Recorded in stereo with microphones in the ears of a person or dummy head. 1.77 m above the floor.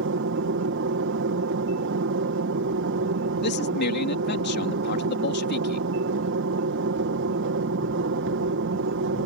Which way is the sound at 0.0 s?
60° right (ahead or behind).